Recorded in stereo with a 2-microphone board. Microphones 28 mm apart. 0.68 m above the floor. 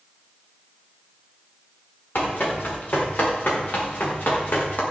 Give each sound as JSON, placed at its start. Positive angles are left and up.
{"t": 2.1, "sound": "running footsteps", "side_deg": 85, "distance_m": 9.5}